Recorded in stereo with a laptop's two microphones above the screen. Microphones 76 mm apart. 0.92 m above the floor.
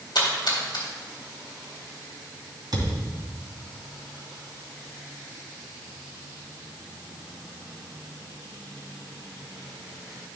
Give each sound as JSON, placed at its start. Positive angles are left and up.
{"t": 0.1, "sound": "a splash", "side_deg": 70, "distance_m": 2.0}
{"t": 2.7, "sound": "a thud", "side_deg": -65, "distance_m": 2.5}